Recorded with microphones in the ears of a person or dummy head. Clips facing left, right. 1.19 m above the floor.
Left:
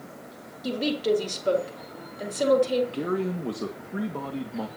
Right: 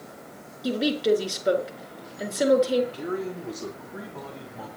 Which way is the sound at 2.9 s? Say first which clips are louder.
Left 3 dB; 65° left (ahead or behind).